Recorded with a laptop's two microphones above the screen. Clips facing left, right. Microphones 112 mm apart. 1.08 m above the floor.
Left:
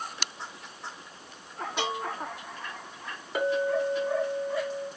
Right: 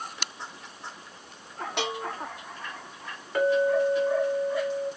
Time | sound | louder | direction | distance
1.8 | a bell | even | 70° right (ahead or behind) | 0.8 m
3.4 | a clink | right 4 dB | 10° left (ahead or behind) | 0.9 m